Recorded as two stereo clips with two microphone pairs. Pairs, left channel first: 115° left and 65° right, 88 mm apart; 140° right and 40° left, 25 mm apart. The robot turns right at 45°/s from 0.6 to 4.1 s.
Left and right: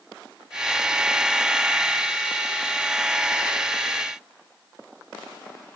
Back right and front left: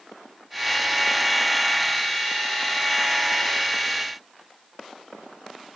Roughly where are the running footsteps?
I don't hear running footsteps.